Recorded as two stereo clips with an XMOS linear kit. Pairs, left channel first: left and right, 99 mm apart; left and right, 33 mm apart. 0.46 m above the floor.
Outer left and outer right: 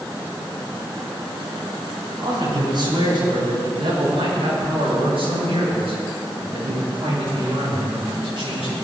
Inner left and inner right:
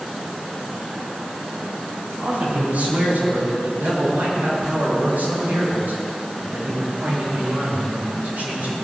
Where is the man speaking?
50° right (ahead or behind), 6 m; by 8.7 s 80° right, 11 m.